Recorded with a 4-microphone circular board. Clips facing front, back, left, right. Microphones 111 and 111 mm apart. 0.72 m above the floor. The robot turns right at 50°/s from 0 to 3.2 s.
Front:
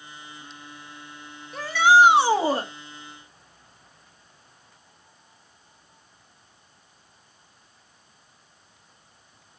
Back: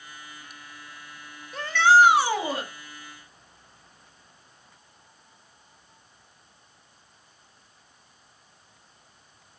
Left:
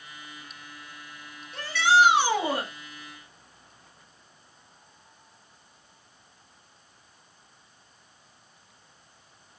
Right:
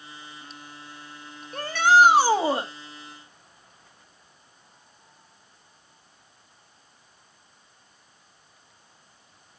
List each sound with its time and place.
1.5 s a shout: 90° right, 1.6 m; by 2.7 s 30° right, 1.6 m